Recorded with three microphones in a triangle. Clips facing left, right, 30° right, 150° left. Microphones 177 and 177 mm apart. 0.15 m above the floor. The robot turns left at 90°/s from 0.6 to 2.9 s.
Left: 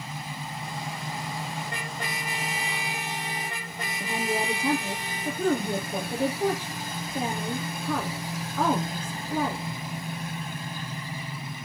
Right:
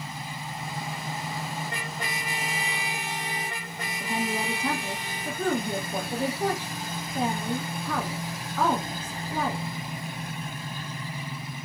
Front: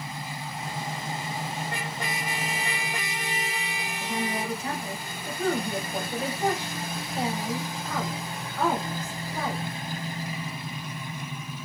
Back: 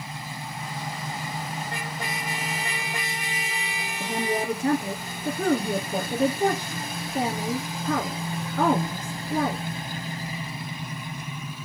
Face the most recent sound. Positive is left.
turn(degrees=165)